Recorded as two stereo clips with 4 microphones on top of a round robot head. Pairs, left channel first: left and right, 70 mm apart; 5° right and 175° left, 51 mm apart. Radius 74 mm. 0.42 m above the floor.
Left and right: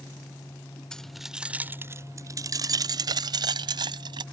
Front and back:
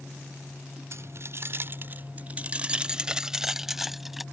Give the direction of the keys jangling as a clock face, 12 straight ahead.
6 o'clock.